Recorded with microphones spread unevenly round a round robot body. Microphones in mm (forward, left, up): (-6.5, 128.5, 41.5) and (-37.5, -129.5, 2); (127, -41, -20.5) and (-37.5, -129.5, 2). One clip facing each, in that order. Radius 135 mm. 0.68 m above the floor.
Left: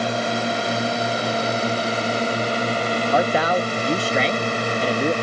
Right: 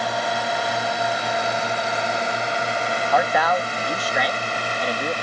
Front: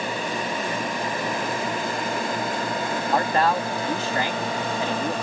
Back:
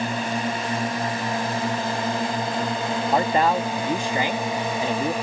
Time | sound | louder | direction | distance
0.0 | a drone | left 3 dB, back 2 dB | 145° left | ?
3.1 | a man speaking | left 1 dB, back 1 dB | 130° left | ?